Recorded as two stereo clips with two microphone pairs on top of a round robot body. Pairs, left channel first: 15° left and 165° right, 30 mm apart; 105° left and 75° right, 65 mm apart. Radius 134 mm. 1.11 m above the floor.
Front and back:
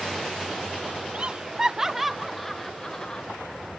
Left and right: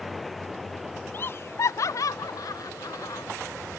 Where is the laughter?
155° left; by 3.2 s 80° left.